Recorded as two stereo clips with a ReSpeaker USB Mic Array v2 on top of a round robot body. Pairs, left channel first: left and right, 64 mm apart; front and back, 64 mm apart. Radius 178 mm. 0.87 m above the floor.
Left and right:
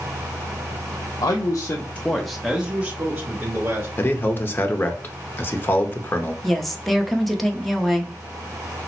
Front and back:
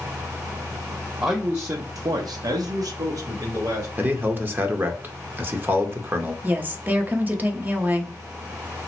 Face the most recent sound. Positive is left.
turn(degrees=175)